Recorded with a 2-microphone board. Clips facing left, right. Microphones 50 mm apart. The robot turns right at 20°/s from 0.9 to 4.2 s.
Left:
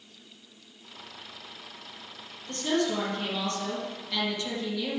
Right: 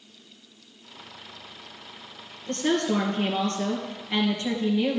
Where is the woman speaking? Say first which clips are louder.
Right 3 dB; 70° right, 3 m; by 5.0 s 35° right, 3 m.